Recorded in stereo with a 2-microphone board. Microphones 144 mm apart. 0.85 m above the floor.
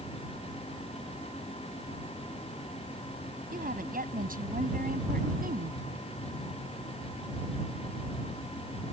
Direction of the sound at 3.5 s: 80° right.